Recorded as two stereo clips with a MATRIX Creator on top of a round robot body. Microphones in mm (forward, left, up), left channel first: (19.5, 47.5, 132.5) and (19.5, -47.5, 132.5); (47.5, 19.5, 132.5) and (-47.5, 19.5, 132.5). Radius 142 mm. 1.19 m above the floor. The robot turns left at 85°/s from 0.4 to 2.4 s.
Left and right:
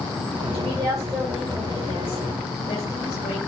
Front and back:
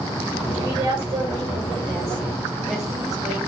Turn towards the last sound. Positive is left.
turn(degrees=95)